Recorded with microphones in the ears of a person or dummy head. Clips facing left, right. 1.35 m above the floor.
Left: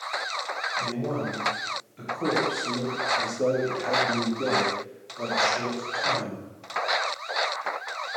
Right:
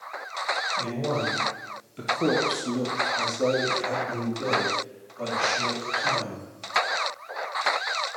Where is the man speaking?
80° right, 1.1 m; by 6.5 s 50° left (ahead or behind), 2 m.